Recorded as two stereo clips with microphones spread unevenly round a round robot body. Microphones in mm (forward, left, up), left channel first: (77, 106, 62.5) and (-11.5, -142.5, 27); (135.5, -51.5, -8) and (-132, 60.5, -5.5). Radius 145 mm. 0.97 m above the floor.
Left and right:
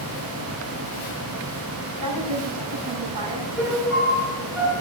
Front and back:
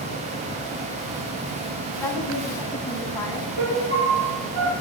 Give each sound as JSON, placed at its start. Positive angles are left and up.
{"t": 2.0, "sound": "a woman speaking", "azimuth_deg": -105, "distance_m": 9.5}
{"t": 3.6, "sound": "a piano", "azimuth_deg": 160, "distance_m": 8.0}